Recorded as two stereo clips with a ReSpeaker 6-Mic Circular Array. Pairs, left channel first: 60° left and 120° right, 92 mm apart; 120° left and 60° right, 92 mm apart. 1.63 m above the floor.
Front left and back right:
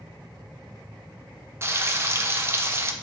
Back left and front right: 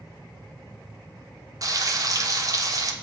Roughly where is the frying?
Right.